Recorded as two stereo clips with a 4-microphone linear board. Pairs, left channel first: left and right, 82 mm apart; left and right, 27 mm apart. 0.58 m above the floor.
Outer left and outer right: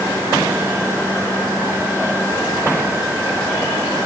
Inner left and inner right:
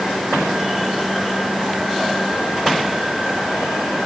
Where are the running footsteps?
No running footsteps in this recording.